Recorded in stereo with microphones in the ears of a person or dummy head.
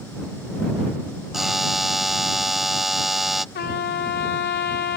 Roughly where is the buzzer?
Centre.